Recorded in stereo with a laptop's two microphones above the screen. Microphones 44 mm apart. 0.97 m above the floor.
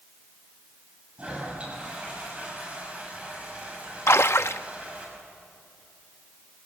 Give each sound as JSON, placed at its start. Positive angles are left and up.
{"t": 1.2, "sound": "a toilet flushing", "side_deg": -30, "distance_m": 6.5}
{"t": 4.1, "sound": "a splash", "side_deg": 70, "distance_m": 0.6}